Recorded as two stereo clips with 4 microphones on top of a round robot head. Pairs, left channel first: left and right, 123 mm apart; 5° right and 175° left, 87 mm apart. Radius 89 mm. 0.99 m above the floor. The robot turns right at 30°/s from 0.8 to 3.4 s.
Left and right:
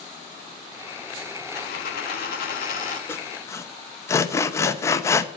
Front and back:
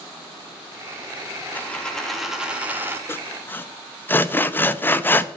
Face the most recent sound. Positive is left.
turn(degrees=40)